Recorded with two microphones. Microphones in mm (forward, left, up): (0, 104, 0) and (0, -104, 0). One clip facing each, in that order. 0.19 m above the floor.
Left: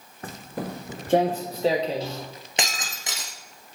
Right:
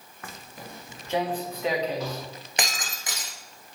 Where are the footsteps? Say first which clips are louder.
Left 10 dB; 35° left (ahead or behind), 0.7 m; by 2.3 s 25° left (ahead or behind), 2.0 m.